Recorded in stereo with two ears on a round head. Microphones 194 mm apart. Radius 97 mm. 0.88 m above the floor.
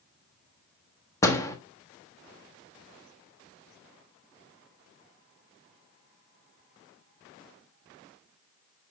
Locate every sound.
1.2 s a door slam: 15° left (ahead or behind), 1.1 m